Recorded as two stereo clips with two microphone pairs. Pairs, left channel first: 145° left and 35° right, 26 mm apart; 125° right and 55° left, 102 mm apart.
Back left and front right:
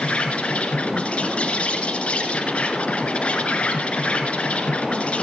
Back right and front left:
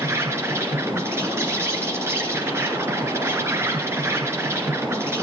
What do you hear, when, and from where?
0.0 s an insect: 115° left, 2.5 m